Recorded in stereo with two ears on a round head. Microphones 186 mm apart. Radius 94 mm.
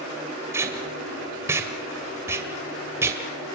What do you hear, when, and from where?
0.5 s tape being pulled: 10° right (ahead or behind), 2 m